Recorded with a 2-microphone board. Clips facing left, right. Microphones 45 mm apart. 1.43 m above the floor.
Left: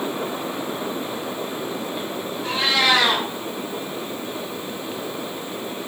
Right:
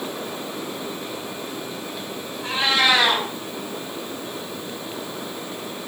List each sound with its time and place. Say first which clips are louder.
2.4 s a cat meowing: even; 20° right (ahead or behind), 1.6 m